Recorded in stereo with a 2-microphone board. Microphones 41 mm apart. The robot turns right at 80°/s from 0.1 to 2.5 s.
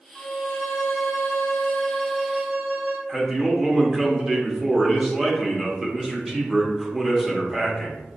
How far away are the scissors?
I don't hear scissors.